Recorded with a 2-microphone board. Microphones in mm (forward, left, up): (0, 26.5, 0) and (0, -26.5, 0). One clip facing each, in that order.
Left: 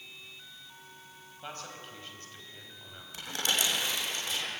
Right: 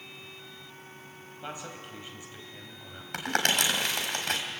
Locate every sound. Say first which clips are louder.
1.4 s a man speaking: right 3 dB; 10° right (ahead or behind), 4 m
3.1 s crumpling: right 5 dB; 65° right (ahead or behind), 3.5 m